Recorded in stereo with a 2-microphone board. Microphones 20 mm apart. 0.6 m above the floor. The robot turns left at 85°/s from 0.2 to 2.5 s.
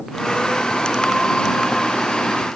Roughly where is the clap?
No clap in this recording.